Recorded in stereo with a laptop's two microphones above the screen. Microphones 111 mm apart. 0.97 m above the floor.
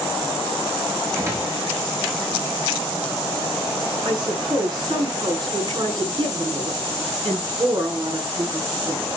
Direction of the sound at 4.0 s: 45° right (ahead or behind).